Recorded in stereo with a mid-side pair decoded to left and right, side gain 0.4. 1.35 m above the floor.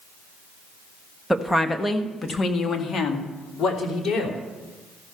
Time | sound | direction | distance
1.3 | a woman speaking | 5° left | 1.4 m